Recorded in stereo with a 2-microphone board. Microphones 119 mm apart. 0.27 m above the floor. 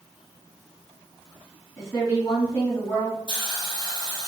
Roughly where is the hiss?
Left.